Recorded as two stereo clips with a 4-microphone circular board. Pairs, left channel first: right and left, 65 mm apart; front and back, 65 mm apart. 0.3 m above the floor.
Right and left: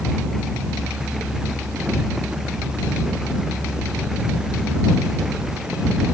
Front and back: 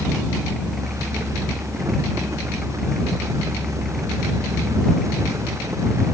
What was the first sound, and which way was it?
Only background noise.